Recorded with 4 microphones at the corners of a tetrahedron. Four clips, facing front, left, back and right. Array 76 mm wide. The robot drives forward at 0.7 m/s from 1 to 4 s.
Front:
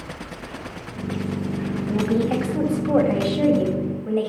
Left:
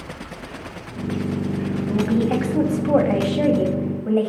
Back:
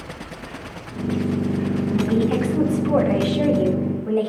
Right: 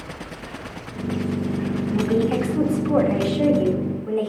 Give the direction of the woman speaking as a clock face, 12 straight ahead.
10 o'clock.